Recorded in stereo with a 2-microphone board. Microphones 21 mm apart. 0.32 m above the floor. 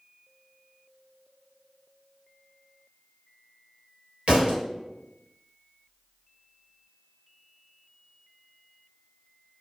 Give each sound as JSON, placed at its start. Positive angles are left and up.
{"t": 4.3, "sound": "a thud", "side_deg": -75, "distance_m": 2.0}